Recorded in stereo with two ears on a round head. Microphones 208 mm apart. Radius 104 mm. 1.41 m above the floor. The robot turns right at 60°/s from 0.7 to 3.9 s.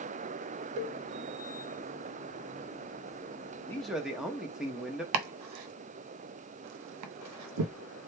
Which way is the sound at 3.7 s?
10° left (ahead or behind).